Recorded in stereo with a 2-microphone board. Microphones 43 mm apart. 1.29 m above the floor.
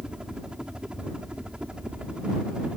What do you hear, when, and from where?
0.0 s a helicopter: 20° right (ahead or behind); by 2.8 s 25° right (ahead or behind)